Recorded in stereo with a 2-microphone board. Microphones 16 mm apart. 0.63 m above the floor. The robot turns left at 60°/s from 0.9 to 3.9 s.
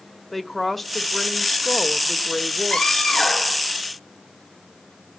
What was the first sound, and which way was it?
A woman speaking, straight behind.